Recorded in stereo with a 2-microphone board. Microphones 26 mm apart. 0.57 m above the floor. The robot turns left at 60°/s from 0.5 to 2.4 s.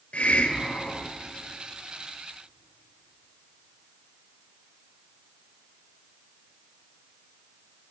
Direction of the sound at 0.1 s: 65° left.